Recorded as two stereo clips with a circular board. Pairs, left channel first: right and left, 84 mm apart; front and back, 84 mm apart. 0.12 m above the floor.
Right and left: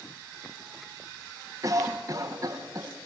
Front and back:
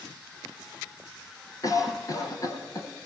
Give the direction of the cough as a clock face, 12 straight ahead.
11 o'clock.